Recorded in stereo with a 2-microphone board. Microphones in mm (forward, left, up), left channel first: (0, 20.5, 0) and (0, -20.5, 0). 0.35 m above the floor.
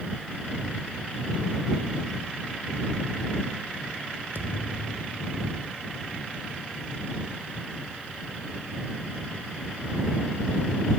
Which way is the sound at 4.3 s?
70° right (ahead or behind).